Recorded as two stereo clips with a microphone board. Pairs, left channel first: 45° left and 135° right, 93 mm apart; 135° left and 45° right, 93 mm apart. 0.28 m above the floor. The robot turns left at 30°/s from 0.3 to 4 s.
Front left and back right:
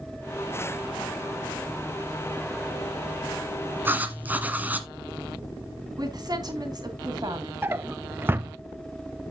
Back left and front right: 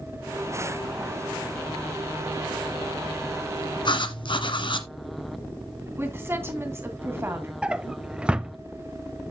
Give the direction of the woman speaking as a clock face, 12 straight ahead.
3 o'clock.